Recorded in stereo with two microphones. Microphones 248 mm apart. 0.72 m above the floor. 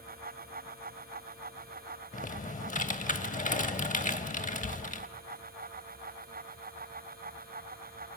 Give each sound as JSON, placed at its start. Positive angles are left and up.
{"t": 2.1, "sound": "typing on a keyboard", "side_deg": 30, "distance_m": 0.5}